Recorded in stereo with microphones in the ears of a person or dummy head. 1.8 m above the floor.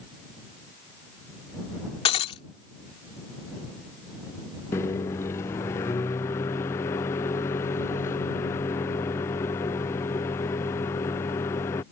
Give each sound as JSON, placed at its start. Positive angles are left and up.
{"t": 2.0, "sound": "breaking glass", "side_deg": 30}
{"t": 4.7, "sound": "a microwave", "side_deg": 15}